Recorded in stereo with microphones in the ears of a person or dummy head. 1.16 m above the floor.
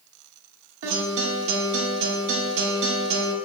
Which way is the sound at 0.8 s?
70° right (ahead or behind).